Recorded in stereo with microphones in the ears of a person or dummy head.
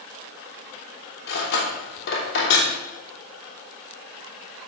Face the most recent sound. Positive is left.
turn(degrees=60)  # may be behind; listen again after turning